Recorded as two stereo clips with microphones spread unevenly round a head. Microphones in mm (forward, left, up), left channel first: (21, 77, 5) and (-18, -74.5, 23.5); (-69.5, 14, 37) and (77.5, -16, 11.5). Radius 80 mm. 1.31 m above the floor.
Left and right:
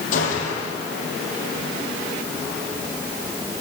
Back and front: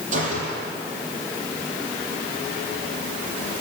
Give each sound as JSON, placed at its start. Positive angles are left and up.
{"t": 0.1, "sound": "a gunshot", "azimuth_deg": 30, "distance_m": 8.5}